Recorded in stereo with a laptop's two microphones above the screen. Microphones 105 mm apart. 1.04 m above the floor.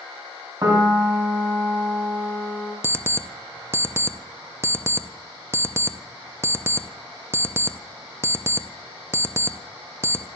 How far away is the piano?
About 3 m.